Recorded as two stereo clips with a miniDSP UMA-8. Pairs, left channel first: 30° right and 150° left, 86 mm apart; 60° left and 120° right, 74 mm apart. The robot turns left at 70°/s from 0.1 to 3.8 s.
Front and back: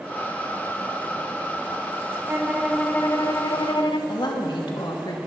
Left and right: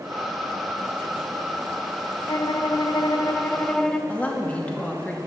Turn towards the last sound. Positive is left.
turn(degrees=-10)